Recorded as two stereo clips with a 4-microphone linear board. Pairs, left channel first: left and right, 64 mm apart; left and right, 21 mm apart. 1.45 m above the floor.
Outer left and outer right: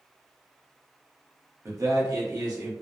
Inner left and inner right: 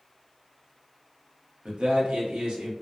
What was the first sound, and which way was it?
A man speaking, 45° right (ahead or behind).